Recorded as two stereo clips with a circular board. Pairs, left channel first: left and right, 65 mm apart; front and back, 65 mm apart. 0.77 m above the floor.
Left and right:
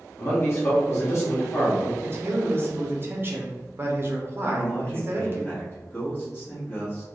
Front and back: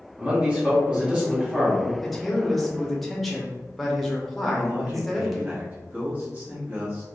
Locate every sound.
0.2 s a man speaking: 115° left, 1.3 m
2.0 s a man speaking: 85° right, 0.6 m
4.4 s a man speaking: 125° left, 1.2 m